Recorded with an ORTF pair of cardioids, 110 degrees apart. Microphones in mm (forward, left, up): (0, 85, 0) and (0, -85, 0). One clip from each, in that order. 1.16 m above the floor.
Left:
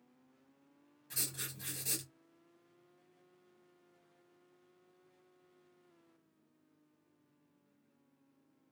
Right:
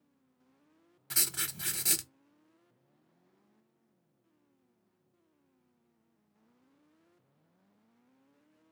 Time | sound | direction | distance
1.1 | writing | 60° right | 0.7 m